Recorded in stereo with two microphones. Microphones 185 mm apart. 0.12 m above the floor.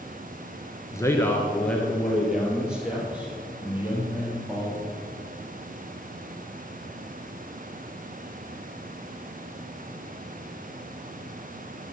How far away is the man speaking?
About 1.5 m.